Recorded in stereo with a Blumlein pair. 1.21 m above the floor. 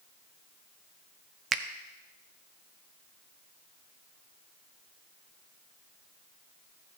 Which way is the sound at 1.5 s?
25° right.